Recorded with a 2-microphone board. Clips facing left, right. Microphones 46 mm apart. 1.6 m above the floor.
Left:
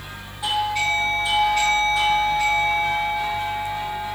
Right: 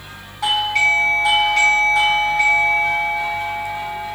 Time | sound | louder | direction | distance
0.4 | a doorbell | right 5 dB | 80° right | 3.5 m